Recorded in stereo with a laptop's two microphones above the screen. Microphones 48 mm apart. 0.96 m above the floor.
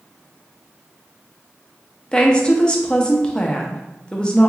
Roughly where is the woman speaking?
Centre.